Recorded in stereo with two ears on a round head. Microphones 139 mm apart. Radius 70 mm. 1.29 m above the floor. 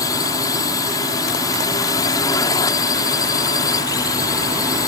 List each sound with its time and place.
0.0 s a drone: 25° left (ahead or behind)